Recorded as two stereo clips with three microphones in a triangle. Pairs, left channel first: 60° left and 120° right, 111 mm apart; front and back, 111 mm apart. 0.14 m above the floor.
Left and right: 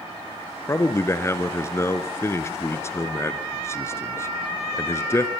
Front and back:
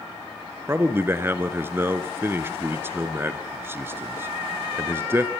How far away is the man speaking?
About 1.6 m.